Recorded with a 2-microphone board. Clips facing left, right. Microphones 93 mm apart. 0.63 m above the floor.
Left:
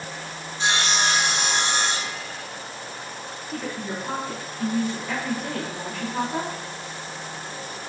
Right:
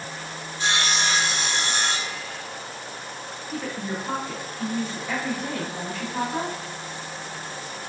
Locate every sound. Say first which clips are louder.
0.6 s sawing: left 2 dB; 25° left (ahead or behind), 0.7 m
3.5 s a woman speaking: right 1 dB; centre (ahead or behind), 1.4 m